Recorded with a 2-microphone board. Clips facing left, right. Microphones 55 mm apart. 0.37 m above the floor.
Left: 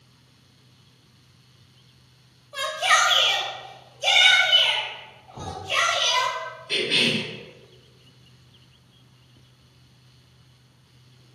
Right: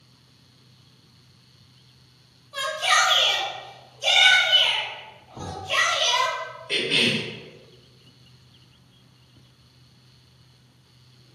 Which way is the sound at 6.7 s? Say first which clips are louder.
Even; 20° right (ahead or behind).